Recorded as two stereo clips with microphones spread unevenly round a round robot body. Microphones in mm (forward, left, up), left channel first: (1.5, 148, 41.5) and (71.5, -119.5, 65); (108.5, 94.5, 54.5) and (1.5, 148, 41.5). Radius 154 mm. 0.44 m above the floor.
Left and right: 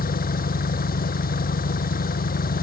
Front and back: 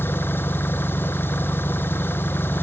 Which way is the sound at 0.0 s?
45° left.